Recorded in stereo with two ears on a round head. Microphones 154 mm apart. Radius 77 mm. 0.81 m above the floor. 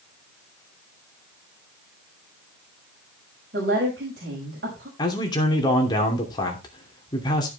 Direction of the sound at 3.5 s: 60° right (ahead or behind).